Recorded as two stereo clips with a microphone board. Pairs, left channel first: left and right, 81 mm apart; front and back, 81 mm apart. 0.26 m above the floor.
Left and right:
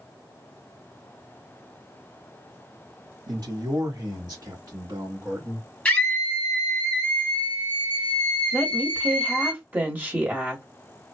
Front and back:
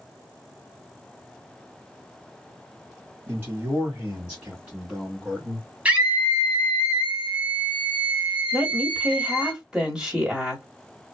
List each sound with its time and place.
3.3 s a man speaking: 125° right, 2 m; by 5.7 s 105° right, 1.2 m
5.8 s a scream: 140° left, 1.3 m
8.5 s a woman speaking: 110° right, 1.6 m